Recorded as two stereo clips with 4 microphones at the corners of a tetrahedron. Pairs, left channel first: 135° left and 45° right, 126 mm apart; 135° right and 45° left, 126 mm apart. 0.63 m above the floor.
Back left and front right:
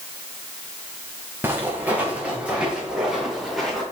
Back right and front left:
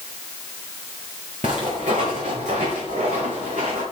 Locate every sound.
1.4 s footsteps: 25° left, 4.5 m; by 3.8 s 45° left, 5 m